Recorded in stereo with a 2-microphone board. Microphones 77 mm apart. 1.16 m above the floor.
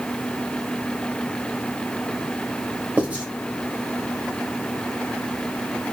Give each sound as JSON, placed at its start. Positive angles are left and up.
{"t": 3.0, "sound": "writing", "side_deg": -20, "distance_m": 1.0}